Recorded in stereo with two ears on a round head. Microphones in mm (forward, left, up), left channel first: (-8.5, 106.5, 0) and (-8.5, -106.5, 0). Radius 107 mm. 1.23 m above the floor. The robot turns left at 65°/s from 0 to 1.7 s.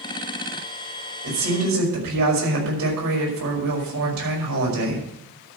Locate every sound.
1.2 s a woman speaking: 45° right (ahead or behind), 5.5 m; by 5.1 s 75° right (ahead or behind), 5.5 m